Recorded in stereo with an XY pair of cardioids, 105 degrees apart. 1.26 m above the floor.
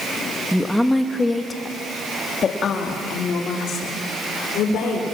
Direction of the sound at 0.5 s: Straight ahead.